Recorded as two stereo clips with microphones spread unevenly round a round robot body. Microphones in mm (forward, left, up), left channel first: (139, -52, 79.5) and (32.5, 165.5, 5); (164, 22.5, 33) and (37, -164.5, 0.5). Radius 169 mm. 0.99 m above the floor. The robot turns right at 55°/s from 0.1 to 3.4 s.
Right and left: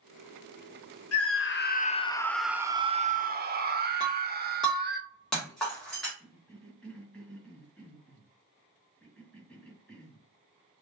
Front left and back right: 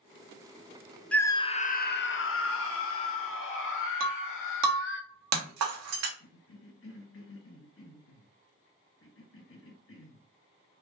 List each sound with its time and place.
1.1 s a scream: 35° right, 0.8 m; by 5.0 s 90° left, 0.8 m
4.0 s breaking glass: 145° right, 0.8 m
6.2 s a cough: 30° left, 1.6 m